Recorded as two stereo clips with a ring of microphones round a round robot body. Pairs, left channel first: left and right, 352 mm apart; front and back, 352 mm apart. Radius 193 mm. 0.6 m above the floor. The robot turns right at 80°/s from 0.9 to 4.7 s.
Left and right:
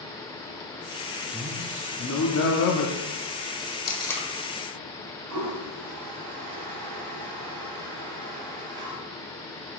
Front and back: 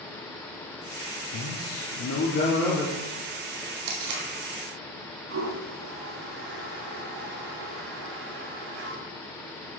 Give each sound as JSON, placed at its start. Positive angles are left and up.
{"t": 1.3, "sound": "a man speaking", "azimuth_deg": -25, "distance_m": 0.9}
{"t": 3.9, "sound": "tape being pulled", "azimuth_deg": 155, "distance_m": 1.6}
{"t": 5.3, "sound": "a toilet flushing", "azimuth_deg": -125, "distance_m": 1.7}